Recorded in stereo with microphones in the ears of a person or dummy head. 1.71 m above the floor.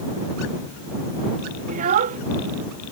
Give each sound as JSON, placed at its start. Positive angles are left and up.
{"t": 1.7, "sound": "a child speaking", "side_deg": -45}